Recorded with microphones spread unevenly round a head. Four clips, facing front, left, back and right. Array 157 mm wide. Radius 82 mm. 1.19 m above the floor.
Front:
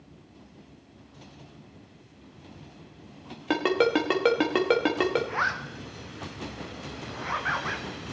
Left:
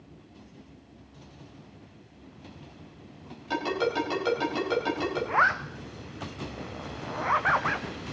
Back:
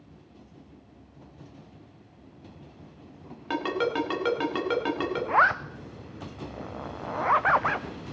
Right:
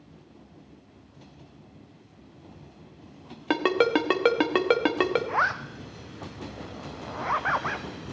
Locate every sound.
3.5 s a ringtone: 60° right, 1.4 m
5.3 s a zipper: straight behind, 0.5 m